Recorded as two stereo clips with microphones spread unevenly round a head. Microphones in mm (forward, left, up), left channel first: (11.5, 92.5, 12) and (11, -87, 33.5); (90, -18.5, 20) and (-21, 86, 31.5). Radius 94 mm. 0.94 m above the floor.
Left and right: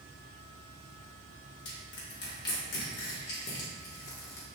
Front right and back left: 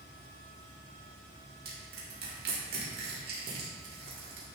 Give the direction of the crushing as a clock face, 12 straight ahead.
8 o'clock.